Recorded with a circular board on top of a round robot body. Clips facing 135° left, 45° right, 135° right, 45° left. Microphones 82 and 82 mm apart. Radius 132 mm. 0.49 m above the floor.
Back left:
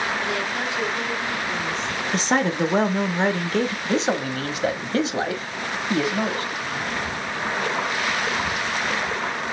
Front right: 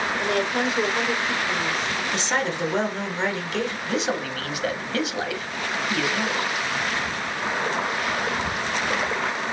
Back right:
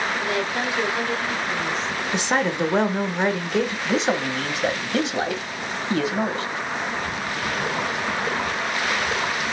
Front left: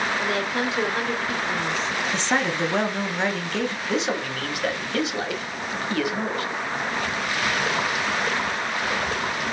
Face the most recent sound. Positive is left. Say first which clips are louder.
# back left 3 dB, back right 3 dB
turn(degrees=175)